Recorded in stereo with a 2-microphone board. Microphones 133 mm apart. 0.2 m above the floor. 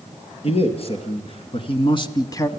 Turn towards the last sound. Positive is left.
turn(degrees=20)  # may be behind; listen again after turning